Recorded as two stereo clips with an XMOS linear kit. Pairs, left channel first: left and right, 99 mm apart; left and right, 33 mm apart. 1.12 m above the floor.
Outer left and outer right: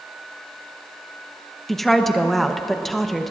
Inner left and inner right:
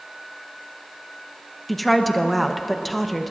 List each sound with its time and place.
1.7 s a woman speaking: 5° left (ahead or behind), 0.9 m